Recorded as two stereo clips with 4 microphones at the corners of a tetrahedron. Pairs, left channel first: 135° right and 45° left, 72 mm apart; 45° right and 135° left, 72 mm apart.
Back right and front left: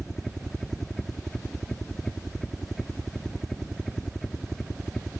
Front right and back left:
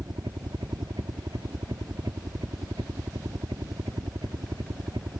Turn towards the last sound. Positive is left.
turn(degrees=140)